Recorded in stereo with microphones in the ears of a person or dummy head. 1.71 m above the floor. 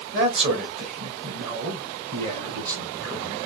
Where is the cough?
I don't hear a cough.